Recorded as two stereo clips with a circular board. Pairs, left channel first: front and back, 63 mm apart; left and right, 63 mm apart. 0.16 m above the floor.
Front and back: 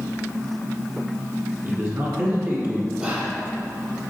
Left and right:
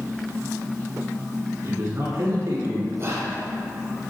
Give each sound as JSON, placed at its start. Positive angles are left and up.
{"t": 1.6, "sound": "a man speaking", "azimuth_deg": -140, "distance_m": 1.9}
{"t": 3.0, "sound": "whispering", "azimuth_deg": -120, "distance_m": 1.9}